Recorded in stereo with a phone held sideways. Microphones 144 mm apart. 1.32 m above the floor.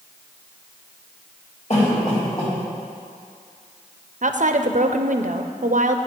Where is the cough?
50° left (ahead or behind), 3.5 m.